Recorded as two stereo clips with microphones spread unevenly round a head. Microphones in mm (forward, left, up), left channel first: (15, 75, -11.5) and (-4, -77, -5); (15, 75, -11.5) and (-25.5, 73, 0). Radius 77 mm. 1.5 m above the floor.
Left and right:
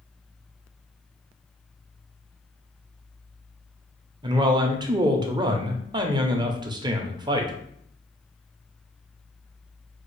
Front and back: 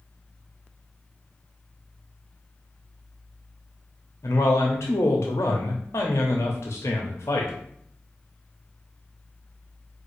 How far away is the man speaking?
About 0.6 m.